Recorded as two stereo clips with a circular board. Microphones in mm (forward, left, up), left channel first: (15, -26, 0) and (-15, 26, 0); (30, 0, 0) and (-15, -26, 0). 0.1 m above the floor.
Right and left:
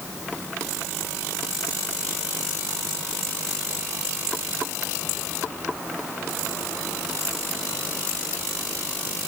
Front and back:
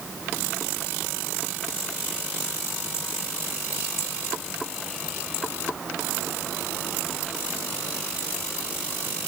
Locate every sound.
Only background noise.